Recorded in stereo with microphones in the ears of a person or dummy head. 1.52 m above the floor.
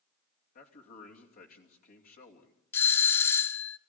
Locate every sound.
0.6 s a man speaking: 50° left (ahead or behind), 2.5 m
2.7 s a doorbell: 15° left (ahead or behind), 0.6 m